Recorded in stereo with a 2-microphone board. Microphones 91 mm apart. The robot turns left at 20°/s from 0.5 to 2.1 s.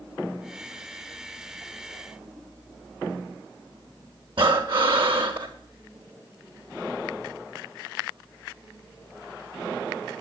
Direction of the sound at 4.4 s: 65° right (ahead or behind).